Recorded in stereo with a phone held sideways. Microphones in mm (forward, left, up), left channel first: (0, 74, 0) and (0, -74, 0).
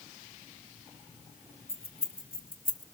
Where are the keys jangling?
90° left, 2 m; by 2.8 s 55° left (ahead or behind), 0.9 m.